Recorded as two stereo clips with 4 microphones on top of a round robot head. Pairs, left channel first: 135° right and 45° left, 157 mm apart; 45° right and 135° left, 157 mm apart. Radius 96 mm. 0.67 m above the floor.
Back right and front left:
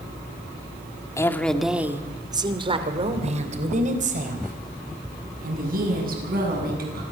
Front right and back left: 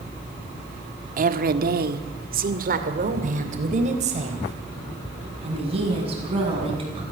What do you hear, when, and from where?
1.2 s a woman speaking: 155° left, 1.6 m; by 7.0 s 75° left, 7.5 m